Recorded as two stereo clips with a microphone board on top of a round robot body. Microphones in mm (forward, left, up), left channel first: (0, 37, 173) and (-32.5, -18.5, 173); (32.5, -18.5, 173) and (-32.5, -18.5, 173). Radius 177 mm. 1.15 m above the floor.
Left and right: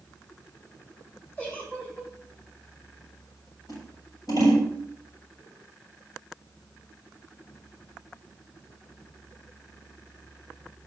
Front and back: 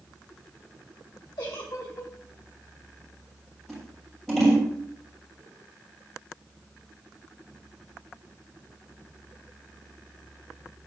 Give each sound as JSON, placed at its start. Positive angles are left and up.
{"t": 1.4, "sound": "a giggle", "azimuth_deg": -5, "distance_m": 1.8}
{"t": 3.7, "sound": "scissors", "azimuth_deg": 85, "distance_m": 5.0}